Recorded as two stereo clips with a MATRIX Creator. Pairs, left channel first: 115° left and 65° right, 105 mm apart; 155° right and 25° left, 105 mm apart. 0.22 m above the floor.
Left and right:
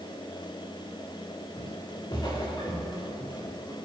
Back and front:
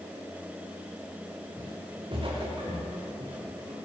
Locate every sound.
1.6 s footsteps: 70° left, 3.5 m; by 3.8 s 50° left, 4.5 m